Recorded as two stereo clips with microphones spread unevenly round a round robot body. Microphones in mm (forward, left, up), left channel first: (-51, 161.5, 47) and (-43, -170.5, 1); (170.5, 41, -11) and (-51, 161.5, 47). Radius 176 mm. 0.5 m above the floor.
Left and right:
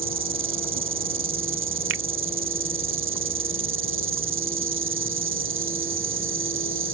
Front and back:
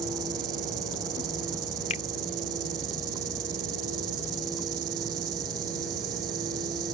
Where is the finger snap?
70° right.